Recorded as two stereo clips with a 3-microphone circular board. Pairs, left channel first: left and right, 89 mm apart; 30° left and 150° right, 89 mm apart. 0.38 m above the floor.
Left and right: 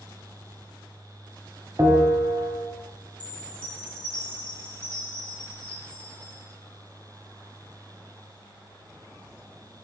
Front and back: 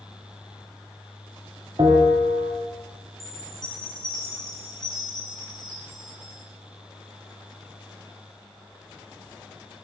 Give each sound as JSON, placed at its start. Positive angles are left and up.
{"t": 1.8, "sound": "a bell", "azimuth_deg": -145, "distance_m": 1.3}
{"t": 3.2, "sound": "a chime", "azimuth_deg": 115, "distance_m": 3.0}